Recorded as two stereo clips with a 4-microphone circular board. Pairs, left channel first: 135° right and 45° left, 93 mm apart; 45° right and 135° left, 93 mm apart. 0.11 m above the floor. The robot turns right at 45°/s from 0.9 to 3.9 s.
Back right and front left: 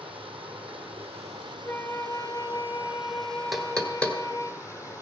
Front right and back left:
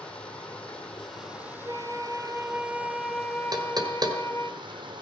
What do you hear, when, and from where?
0.0 s running water: 35° left, 2.5 m; by 5.0 s 170° left, 2.5 m
1.6 s a flute: 160° left, 0.7 m; by 4.5 s 100° right, 0.7 m
3.5 s knocking: 135° left, 1.6 m; by 4.2 s 150° left, 1.6 m